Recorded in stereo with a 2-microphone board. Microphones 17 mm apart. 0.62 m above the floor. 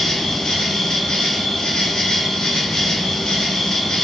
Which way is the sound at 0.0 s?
60° left (ahead or behind).